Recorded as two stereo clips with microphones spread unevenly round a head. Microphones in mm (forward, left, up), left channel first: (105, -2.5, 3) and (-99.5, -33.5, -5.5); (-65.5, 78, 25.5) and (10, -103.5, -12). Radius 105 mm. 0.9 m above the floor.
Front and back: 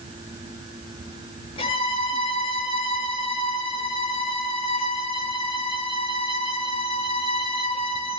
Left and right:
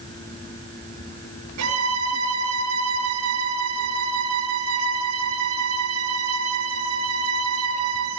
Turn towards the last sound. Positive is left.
turn(degrees=-55)